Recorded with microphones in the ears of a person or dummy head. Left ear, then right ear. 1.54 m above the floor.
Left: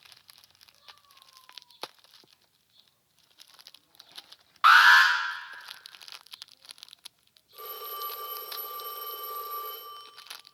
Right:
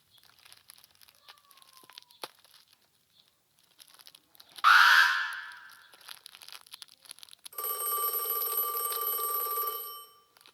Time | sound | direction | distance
4.6 | an alarm | 15° left (ahead or behind) | 1.0 m
7.5 | a phone ringing | 40° right (ahead or behind) | 1.0 m